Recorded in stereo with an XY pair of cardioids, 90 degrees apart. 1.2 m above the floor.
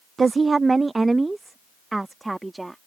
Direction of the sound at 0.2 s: 35° right.